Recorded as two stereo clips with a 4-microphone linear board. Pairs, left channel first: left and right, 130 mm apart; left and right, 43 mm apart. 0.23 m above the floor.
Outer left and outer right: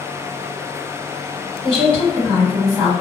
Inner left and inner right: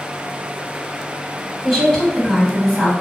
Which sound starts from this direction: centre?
A woman speaking, at 1.6 s.